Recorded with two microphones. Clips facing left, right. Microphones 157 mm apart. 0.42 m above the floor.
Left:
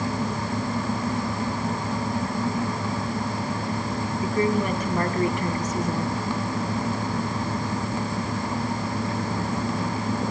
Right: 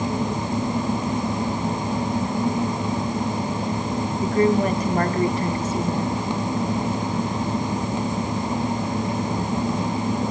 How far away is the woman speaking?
About 3 m.